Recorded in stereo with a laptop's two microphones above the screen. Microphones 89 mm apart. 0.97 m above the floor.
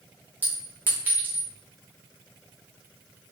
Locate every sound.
0.4 s a clink: 20° right (ahead or behind), 0.8 m